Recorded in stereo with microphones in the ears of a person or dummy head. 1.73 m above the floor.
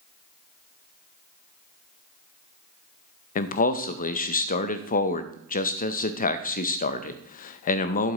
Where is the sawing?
I don't hear sawing.